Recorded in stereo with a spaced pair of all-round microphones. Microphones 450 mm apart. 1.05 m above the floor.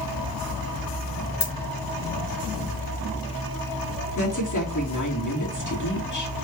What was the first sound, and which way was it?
A dropped coin, 60° left (ahead or behind).